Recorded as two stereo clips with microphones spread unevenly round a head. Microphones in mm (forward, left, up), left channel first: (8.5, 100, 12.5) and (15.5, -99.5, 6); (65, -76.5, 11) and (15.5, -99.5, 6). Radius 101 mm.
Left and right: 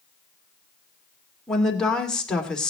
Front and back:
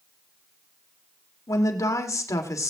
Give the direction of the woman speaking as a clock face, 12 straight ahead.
12 o'clock.